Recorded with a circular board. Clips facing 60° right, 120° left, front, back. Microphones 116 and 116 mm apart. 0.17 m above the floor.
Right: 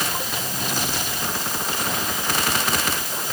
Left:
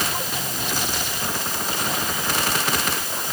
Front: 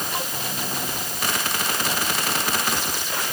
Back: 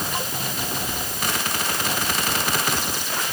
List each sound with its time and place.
Only background noise.